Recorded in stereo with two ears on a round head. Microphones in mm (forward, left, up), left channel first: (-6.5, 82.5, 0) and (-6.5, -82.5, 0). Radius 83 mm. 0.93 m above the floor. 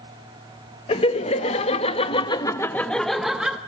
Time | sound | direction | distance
0.9 | laughter | 30° left (ahead or behind) | 1.2 m